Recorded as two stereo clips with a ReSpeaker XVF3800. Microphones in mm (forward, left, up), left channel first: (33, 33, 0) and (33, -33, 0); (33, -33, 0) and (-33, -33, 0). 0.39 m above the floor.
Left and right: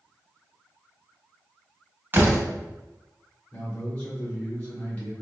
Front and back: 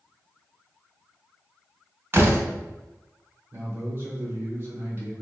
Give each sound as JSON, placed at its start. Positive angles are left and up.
{"t": 2.1, "sound": "a door slam", "azimuth_deg": -135, "distance_m": 0.8}
{"t": 3.5, "sound": "a man speaking", "azimuth_deg": 150, "distance_m": 1.2}